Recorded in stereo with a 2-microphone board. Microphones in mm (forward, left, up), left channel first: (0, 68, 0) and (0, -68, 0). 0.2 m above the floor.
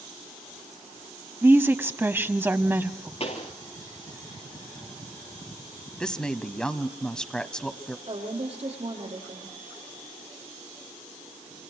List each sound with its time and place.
1.4 s a woman speaking: 15° right (ahead or behind), 1.0 m
3.2 s a pop: 50° left (ahead or behind), 3.5 m
6.0 s a woman speaking: 5° left (ahead or behind), 1.2 m
8.1 s a woman speaking: 50° right (ahead or behind), 6 m